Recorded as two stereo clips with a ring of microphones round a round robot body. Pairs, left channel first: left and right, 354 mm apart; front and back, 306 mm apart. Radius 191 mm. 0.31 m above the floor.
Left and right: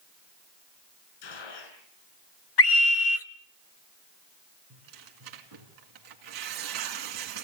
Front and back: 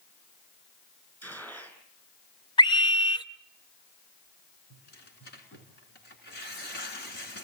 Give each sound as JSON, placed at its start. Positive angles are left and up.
{"t": 1.2, "sound": "a gunshot", "azimuth_deg": 85, "distance_m": 6.0}
{"t": 2.6, "sound": "a scream", "azimuth_deg": 70, "distance_m": 1.1}
{"t": 4.7, "sound": "tearing paper", "azimuth_deg": -65, "distance_m": 2.5}